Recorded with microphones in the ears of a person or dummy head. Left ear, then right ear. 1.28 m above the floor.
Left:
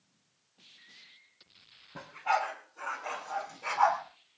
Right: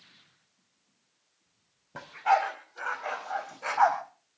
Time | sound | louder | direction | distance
1.9 | a dog barking | right 5 dB | 65° right (ahead or behind) | 4 m